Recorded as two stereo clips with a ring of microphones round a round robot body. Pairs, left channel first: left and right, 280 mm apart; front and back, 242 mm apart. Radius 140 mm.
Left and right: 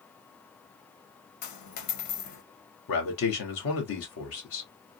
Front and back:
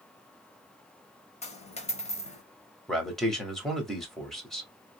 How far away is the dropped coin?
About 0.9 m.